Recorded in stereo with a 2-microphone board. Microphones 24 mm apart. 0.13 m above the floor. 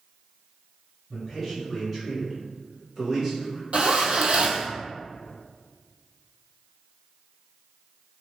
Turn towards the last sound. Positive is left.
turn(degrees=-55)  # may be behind; listen again after turning